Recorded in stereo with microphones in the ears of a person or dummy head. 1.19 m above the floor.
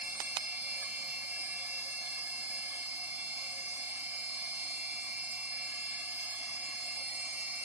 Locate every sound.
0.0 s a machine running: 5° right (ahead or behind), 2 m